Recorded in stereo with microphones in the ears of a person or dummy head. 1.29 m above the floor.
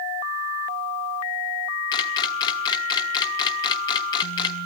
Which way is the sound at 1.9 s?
25° left (ahead or behind).